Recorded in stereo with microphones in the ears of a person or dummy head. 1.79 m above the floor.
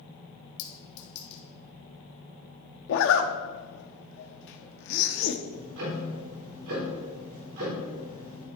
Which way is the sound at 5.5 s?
65° right (ahead or behind).